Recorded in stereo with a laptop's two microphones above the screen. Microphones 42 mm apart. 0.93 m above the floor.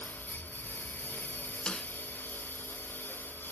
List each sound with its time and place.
0.0 s a lawn mower: 50° left (ahead or behind)
1.7 s a snare drum: 20° left (ahead or behind)